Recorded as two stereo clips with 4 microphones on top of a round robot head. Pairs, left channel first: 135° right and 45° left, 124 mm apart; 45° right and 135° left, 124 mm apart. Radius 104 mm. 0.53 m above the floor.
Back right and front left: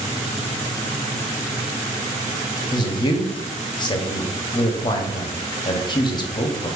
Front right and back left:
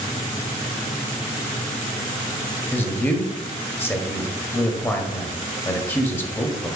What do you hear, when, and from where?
2.7 s a man speaking: 110° right, 0.8 m